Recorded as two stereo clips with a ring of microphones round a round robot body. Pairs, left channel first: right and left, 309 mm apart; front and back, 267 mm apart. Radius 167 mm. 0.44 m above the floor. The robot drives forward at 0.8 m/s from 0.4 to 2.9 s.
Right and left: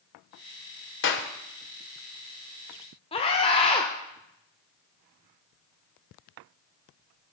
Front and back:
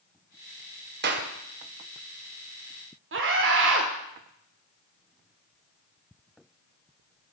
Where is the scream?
155° right, 1.3 m.